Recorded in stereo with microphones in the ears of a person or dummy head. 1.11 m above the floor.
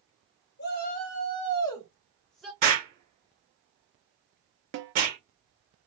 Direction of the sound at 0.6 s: 55° left (ahead or behind).